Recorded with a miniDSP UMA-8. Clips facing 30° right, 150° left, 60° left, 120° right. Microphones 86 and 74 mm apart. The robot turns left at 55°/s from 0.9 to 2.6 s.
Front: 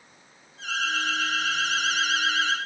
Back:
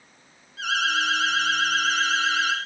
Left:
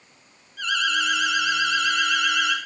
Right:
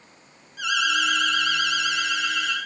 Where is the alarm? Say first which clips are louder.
Back 4 dB, right 1 dB; 160° left, 7 m; by 2.5 s 70° left, 7 m.